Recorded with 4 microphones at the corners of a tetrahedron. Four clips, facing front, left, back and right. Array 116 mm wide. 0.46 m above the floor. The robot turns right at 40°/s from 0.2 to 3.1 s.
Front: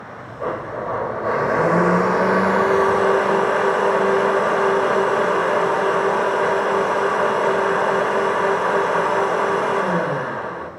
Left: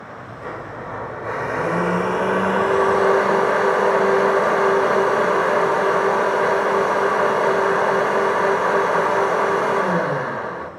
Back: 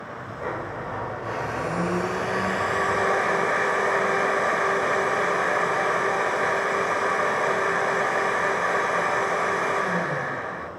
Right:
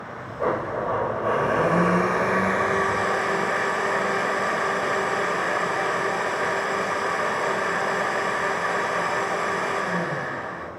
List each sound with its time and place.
0.4 s a blender: 55° right, 1.0 m; by 10.7 s 50° left, 1.0 m